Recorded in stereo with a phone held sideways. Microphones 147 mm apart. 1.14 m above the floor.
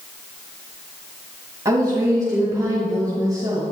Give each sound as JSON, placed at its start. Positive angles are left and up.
{"t": 1.6, "sound": "a woman speaking", "side_deg": -20, "distance_m": 1.5}